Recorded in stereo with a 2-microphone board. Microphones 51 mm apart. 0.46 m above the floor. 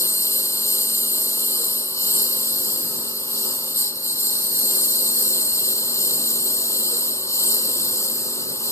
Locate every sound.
0.0 s a lawn mower: 75° left (ahead or behind)